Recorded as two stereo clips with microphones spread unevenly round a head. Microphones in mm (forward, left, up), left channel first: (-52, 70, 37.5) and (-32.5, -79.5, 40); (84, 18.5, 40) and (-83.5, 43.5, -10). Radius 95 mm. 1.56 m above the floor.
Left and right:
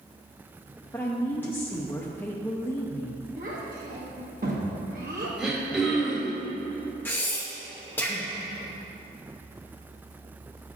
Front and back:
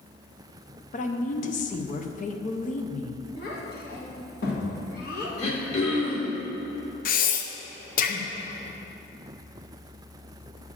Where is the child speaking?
40° right, 1.8 m.